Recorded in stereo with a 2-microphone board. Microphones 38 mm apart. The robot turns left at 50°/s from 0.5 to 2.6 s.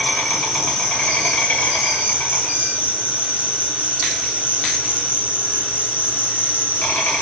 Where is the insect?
175° right, 1.4 m; by 7.2 s 80° left, 1.4 m.